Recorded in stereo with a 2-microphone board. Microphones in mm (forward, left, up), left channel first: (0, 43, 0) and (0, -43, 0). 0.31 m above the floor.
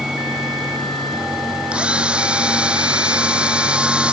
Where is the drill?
10° right (ahead or behind).